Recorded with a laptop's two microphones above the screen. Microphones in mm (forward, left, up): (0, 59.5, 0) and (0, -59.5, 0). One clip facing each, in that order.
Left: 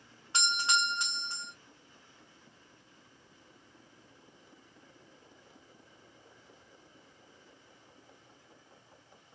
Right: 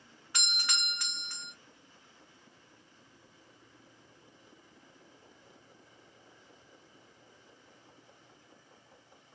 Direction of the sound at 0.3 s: 25° left (ahead or behind).